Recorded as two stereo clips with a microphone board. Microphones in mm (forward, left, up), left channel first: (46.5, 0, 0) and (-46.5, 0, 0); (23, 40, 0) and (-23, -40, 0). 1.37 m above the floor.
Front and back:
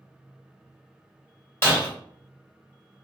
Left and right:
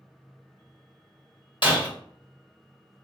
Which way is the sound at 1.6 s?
55° left.